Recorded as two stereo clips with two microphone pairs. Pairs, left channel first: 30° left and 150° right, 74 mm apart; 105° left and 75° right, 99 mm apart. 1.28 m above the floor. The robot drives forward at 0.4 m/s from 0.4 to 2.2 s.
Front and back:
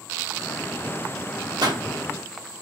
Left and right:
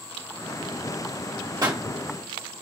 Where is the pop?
125° right, 1.5 m.